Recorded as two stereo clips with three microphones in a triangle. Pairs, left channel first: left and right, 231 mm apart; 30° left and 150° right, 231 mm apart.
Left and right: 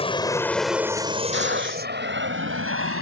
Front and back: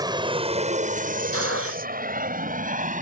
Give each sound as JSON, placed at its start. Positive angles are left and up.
{"t": 0.0, "sound": "an aircraft", "azimuth_deg": 145}
{"t": 1.3, "sound": "a gunshot", "azimuth_deg": -130}